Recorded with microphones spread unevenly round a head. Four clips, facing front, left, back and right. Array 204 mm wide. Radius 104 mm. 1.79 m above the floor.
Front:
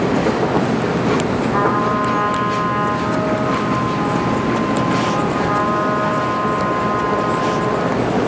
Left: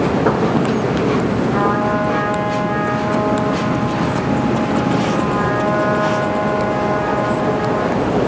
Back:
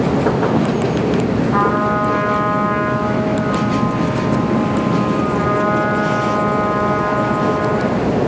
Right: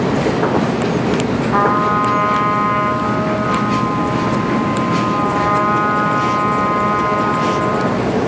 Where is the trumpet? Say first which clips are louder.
Right 5 dB, even; 105° right, 3.5 m.